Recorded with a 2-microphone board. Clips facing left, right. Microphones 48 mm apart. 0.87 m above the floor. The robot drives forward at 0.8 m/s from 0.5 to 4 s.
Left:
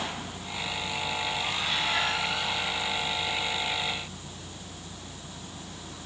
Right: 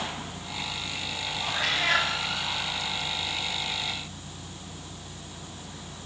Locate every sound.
1.5 s a cat meowing: 80° right, 5.5 m